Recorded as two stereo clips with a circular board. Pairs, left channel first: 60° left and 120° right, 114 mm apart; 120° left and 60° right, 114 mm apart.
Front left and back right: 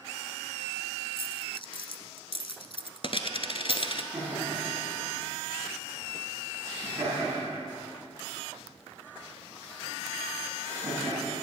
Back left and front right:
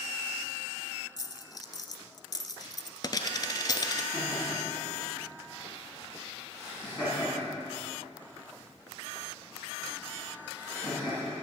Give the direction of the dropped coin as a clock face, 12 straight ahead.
10 o'clock.